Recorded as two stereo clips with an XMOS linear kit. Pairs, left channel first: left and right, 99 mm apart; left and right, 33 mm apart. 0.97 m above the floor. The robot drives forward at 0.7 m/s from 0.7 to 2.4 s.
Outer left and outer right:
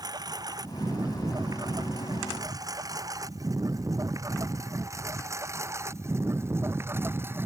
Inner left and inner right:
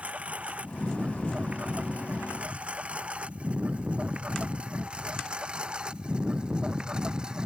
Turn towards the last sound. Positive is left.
turn(degrees=-25)  # may be behind; listen again after turning